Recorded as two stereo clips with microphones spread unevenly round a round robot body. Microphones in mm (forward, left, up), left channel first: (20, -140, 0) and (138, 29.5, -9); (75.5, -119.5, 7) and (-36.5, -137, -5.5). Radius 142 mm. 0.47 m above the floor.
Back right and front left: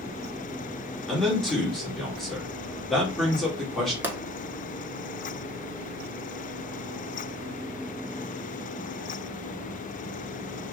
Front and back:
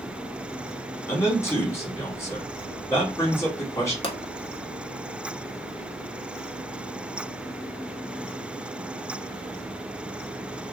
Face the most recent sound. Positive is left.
turn(degrees=-25)